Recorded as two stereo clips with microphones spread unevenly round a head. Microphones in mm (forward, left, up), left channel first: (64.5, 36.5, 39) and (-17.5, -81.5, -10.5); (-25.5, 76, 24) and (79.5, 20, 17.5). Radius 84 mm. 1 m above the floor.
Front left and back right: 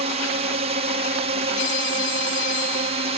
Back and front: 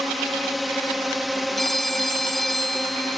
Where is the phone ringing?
65° left.